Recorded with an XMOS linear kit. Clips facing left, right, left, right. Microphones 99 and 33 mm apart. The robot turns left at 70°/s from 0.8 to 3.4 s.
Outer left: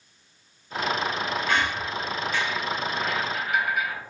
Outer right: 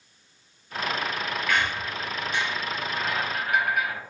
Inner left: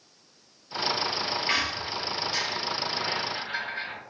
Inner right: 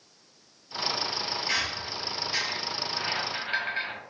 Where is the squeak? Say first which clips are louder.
Outer right 1 dB, inner left 2 dB; 35° left, 1.1 m; by 4.0 s 95° right, 1.1 m.